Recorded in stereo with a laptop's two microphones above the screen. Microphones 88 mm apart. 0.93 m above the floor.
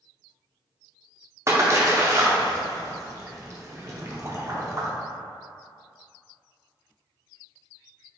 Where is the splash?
35° right (ahead or behind), 0.5 m.